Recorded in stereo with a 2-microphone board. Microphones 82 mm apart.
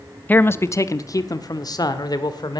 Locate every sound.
0.3 s a man speaking: 20° left (ahead or behind), 0.6 m; by 2.6 s 55° left (ahead or behind), 1.9 m